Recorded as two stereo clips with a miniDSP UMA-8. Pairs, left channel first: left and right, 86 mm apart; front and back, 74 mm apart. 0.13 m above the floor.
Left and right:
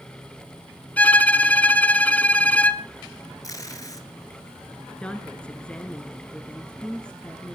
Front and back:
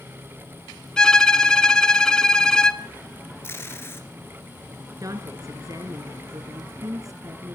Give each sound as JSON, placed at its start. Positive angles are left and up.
{"t": 1.0, "sound": "a violin", "azimuth_deg": 60, "distance_m": 0.5}
{"t": 3.4, "sound": "tape being pulled", "azimuth_deg": 50, "distance_m": 1.6}
{"t": 5.0, "sound": "a woman speaking", "azimuth_deg": 165, "distance_m": 1.6}